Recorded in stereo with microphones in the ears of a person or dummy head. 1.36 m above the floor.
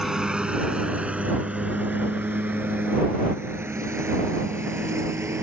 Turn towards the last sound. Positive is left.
turn(degrees=-15)  # may be behind; listen again after turning